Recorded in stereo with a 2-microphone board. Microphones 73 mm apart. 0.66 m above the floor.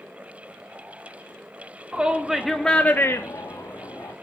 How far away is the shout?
About 1.5 m.